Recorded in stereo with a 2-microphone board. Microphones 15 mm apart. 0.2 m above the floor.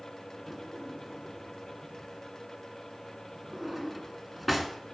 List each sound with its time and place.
0.5 s a drawer: centre (ahead or behind), 1.3 m